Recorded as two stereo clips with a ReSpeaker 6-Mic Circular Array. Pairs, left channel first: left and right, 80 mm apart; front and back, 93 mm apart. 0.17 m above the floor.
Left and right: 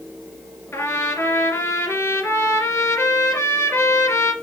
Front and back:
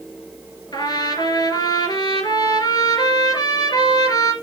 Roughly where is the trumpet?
Ahead left.